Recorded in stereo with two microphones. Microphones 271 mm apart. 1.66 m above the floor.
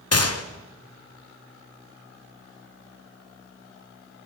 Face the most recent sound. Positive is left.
turn(degrees=60)  # may be behind; listen again after turning